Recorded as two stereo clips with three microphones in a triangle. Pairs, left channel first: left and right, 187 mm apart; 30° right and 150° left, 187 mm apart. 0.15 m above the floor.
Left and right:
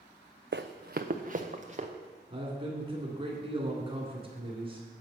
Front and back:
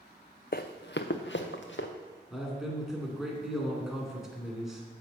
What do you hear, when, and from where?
0.5 s running footsteps: 65° right, 0.6 m; by 1.9 s 35° right, 1.4 m
2.3 s a man speaking: 125° right, 2.0 m